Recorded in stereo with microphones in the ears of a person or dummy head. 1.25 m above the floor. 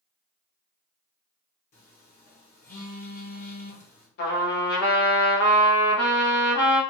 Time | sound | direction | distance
1.7 | a phone buzzing | 45° left (ahead or behind) | 0.9 m
4.2 | a trumpet | 65° left (ahead or behind) | 0.9 m